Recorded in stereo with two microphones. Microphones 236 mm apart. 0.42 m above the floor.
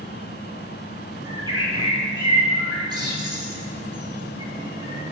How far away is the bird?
About 2 m.